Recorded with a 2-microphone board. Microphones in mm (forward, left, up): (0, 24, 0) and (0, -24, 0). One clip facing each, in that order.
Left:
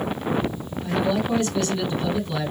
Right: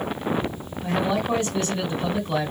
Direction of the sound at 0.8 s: 30° right (ahead or behind).